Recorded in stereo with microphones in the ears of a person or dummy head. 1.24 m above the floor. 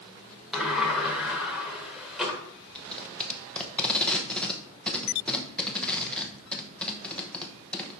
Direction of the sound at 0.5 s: 5° right (ahead or behind).